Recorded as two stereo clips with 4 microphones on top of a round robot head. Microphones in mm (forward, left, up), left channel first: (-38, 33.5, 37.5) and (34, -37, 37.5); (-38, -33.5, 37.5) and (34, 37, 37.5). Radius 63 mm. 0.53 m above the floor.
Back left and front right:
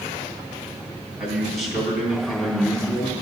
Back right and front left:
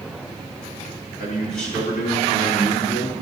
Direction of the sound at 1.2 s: 130° right.